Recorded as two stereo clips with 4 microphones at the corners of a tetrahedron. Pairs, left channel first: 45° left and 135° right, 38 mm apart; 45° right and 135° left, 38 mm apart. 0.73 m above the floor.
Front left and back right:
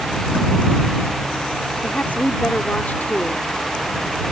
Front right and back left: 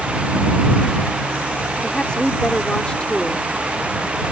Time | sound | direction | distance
1.8 | a woman speaking | 15° left | ?